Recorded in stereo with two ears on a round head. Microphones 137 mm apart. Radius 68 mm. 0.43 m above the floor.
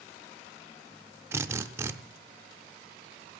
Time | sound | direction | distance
1.3 | a drill | 15° right (ahead or behind) | 0.7 m